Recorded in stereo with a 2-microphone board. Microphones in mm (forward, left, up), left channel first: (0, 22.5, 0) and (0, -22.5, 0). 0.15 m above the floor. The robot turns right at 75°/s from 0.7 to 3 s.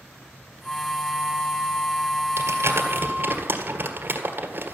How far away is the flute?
About 0.7 m.